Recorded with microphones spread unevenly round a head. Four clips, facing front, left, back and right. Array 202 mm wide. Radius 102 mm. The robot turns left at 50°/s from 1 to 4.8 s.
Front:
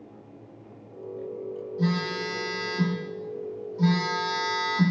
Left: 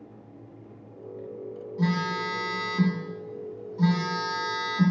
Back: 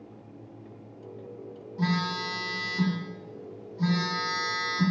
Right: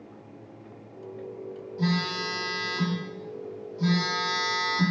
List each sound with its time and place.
1.8 s a phone buzzing: 160° left, 2.0 m; by 4.9 s 10° left, 2.0 m